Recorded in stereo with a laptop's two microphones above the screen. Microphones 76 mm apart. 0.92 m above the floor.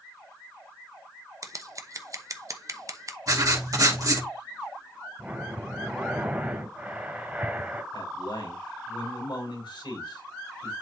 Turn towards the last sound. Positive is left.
turn(degrees=85)